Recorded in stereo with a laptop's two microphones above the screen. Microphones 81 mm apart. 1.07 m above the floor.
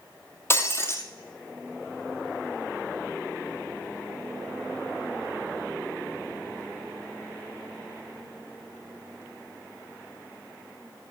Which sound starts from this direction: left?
Breaking glass, at 0.5 s.